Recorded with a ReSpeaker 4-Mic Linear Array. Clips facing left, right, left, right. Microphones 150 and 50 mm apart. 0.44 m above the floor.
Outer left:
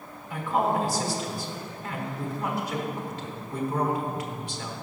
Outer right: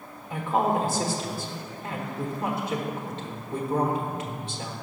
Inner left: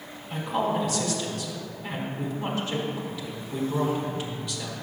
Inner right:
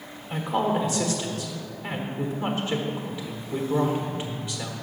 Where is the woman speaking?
25° right (ahead or behind), 1.3 m.